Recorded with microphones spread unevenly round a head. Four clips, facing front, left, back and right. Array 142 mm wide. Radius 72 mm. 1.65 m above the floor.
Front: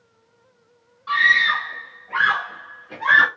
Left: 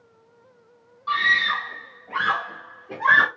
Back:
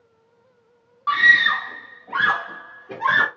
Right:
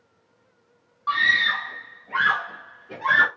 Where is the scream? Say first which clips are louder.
Even, back 1 dB; 130° right, 0.6 m; by 3.3 s 135° left, 1.0 m.